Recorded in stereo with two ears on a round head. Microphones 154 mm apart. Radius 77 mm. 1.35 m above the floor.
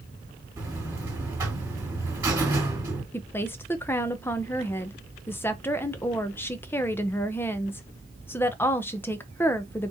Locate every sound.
0.6 s a buzzer: 20° right (ahead or behind), 2.5 m
3.1 s a woman speaking: 15° left (ahead or behind), 0.5 m